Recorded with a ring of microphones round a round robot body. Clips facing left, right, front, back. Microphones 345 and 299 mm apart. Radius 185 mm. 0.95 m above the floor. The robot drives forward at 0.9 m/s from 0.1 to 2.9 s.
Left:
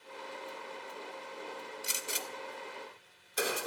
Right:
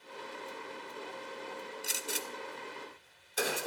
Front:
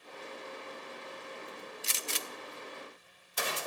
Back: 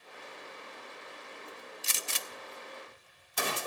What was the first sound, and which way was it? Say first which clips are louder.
A gunshot: right 2 dB, front 2 dB; 175° left.